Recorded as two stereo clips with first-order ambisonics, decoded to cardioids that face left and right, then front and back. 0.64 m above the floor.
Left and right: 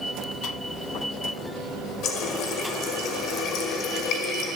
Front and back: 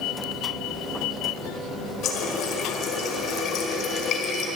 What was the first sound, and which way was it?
A running tap, 45° left.